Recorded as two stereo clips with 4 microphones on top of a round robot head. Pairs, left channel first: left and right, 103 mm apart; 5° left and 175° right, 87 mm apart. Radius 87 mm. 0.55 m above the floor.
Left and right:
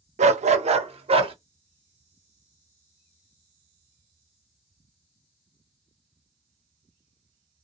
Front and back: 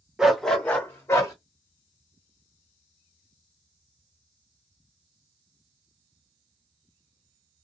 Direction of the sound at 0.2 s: 90° right.